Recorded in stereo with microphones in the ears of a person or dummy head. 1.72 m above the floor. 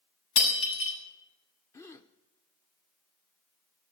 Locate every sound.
0.4 s breaking glass: 80° left, 6.5 m
1.7 s a gasp: 15° left (ahead or behind), 0.9 m